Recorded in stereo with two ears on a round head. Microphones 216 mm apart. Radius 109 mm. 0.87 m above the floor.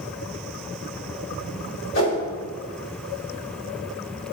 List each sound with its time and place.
1.9 s a whoosh: 60° left (ahead or behind), 2.5 m